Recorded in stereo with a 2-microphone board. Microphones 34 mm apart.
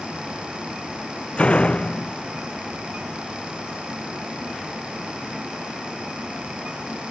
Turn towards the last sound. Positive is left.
turn(degrees=40)  # may be behind; listen again after turning